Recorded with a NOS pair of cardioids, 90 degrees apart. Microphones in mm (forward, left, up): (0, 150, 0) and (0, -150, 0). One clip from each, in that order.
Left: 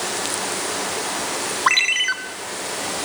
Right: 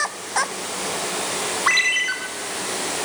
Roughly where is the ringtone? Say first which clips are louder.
Left 1 dB; ahead left.